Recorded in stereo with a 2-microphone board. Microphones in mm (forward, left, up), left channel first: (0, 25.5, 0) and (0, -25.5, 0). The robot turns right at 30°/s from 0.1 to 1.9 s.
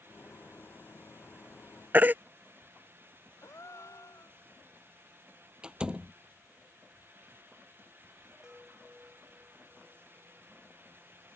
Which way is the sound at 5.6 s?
15° right (ahead or behind).